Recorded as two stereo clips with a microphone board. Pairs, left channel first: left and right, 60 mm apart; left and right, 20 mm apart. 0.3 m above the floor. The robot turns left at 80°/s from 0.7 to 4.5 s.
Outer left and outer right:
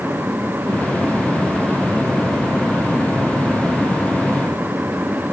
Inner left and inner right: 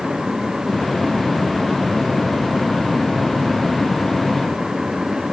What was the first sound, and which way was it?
Only background noise.